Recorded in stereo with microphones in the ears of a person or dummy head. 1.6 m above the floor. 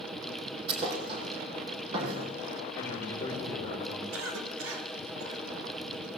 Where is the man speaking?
15° left (ahead or behind), 4 m.